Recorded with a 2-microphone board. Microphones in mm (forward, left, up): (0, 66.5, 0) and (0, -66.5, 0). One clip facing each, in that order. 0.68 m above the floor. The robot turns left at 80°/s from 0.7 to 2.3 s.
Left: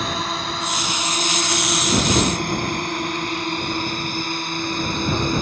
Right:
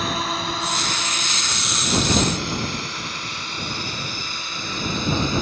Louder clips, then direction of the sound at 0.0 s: Even; centre (ahead or behind).